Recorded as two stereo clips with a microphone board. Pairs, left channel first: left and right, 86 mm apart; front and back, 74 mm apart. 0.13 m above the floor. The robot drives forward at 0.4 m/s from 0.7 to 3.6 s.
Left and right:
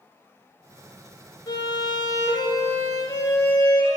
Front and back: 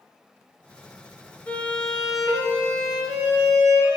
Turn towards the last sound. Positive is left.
turn(degrees=145)